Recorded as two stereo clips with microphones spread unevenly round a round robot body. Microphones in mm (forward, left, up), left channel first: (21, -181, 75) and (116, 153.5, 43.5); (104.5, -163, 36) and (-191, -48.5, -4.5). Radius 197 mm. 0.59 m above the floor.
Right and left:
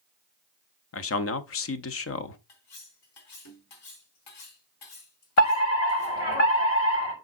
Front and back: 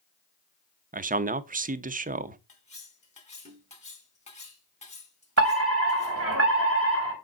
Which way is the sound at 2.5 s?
90° right.